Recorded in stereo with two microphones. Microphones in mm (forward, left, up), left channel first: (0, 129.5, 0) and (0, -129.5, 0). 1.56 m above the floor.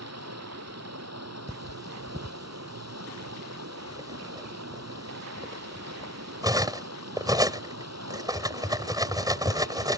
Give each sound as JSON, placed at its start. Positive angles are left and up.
{"t": 0.0, "sound": "running water", "side_deg": -70}
{"t": 1.5, "sound": "cutlery clinking", "side_deg": -15}